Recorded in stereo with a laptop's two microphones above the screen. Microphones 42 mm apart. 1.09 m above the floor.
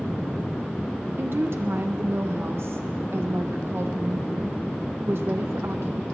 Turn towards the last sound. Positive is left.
turn(degrees=-65)  # may be behind; listen again after turning